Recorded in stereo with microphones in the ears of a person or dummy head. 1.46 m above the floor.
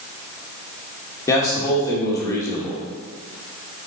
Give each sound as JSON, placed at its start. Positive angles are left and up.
{"t": 1.3, "sound": "a man speaking", "side_deg": 15, "distance_m": 2.0}